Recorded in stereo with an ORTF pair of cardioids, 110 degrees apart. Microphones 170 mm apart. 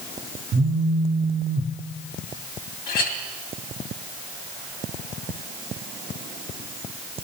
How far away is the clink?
About 2 m.